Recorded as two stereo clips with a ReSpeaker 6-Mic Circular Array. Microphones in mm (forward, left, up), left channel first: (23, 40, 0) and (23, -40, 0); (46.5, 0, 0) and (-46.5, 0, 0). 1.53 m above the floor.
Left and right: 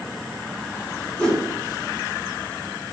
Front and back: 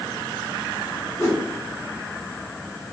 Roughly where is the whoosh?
Ahead.